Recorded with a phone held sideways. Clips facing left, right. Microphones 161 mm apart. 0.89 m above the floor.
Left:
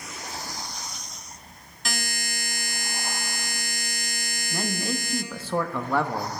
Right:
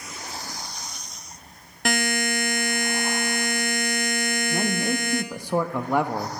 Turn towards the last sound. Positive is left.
turn(degrees=-15)  # may be behind; listen again after turning